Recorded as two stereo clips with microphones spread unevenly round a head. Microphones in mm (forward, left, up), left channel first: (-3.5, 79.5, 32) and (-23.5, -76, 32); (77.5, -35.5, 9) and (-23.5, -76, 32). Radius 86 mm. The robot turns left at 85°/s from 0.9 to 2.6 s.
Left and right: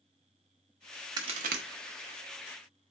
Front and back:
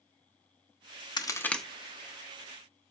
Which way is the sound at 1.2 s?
30° right.